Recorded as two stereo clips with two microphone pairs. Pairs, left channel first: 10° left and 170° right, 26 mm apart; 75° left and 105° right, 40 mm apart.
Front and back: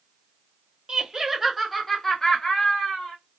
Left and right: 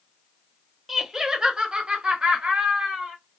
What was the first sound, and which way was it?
Laughter, 175° right.